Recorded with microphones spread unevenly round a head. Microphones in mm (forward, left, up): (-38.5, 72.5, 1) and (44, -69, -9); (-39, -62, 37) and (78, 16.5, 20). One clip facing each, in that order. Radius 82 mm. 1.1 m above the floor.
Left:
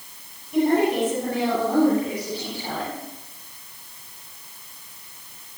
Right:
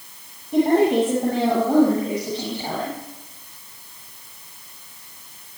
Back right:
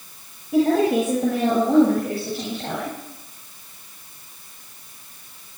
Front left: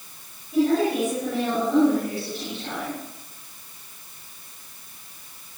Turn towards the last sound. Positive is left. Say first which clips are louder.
# right 3 dB, back right 3 dB
turn(degrees=-120)